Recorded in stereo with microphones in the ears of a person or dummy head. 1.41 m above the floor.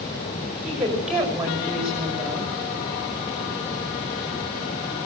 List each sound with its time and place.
0.6 s a woman speaking: centre (ahead or behind), 5.5 m